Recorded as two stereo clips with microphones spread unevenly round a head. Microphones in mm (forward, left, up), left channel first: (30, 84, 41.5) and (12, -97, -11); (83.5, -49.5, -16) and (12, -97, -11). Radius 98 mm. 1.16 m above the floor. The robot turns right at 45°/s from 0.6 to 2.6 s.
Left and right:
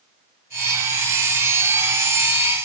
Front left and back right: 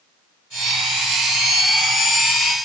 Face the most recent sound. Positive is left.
No sound to turn to.